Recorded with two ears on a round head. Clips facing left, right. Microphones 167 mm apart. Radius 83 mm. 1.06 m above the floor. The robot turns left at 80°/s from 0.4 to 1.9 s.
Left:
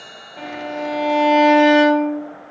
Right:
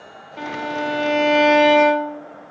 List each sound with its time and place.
0.4 s a violin: 85° right, 0.7 m; by 2.2 s 155° left, 0.7 m